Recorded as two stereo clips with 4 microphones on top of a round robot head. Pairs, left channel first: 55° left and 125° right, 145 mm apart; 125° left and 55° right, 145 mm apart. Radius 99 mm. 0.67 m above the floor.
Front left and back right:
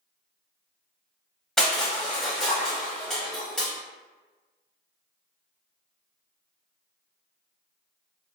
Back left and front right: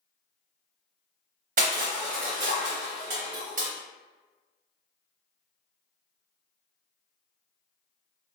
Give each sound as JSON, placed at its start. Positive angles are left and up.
{"t": 1.6, "sound": "crushing", "azimuth_deg": -30, "distance_m": 0.6}